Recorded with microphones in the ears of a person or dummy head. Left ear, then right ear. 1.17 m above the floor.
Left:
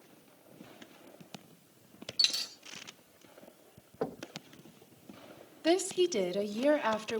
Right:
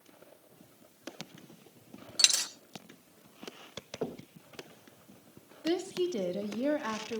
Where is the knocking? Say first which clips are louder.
Left 2 dB; 25° left (ahead or behind), 1.0 m.